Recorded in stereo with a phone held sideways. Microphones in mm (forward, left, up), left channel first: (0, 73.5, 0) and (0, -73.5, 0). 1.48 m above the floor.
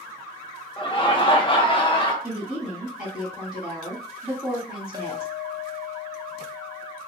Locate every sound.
0.8 s laughter: 35° left (ahead or behind), 1.0 m
2.2 s a woman speaking: 15° right (ahead or behind), 2 m
4.9 s a clink: 30° right (ahead or behind), 0.8 m